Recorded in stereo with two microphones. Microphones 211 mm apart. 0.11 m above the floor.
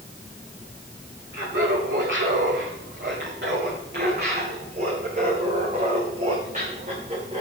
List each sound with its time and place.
1.3 s laughter: 70° right (ahead or behind), 5.5 m; by 7.4 s 30° right (ahead or behind), 7 m